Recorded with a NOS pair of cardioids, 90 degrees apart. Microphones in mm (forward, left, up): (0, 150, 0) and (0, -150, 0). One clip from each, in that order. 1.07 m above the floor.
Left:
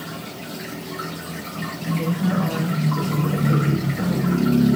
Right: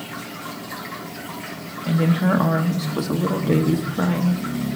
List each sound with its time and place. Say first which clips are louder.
1.9 s a woman speaking: right 5 dB; 50° right, 1.1 m